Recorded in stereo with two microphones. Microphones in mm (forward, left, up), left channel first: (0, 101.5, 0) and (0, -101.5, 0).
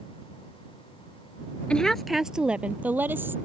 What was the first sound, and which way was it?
A woman speaking, 5° left (ahead or behind).